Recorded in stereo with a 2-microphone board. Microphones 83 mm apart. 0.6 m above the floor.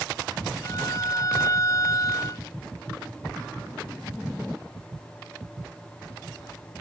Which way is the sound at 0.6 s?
40° left (ahead or behind).